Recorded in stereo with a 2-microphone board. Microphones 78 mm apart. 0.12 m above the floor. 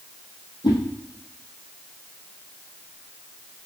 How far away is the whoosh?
About 2 m.